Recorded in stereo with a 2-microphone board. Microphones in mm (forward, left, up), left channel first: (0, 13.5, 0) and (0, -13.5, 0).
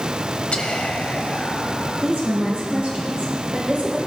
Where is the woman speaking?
70° right (ahead or behind), 4.5 m.